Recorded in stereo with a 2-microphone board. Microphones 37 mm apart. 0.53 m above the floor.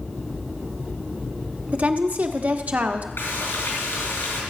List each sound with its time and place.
1.7 s a woman speaking: 45° right (ahead or behind), 1.2 m
3.2 s frying: 80° left, 4 m